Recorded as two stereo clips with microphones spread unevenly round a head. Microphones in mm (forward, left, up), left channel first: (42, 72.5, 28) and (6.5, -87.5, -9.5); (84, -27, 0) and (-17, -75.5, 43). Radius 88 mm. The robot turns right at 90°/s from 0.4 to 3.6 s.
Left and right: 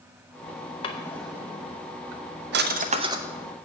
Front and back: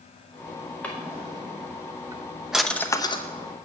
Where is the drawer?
120° left, 0.8 m; by 3.7 s 10° left, 0.8 m.